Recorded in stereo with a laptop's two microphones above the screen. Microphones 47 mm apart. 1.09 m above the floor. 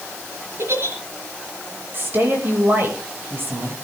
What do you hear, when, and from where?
0.6 s a giggle: 60° right (ahead or behind), 4 m
1.9 s a woman speaking: 45° right (ahead or behind), 6 m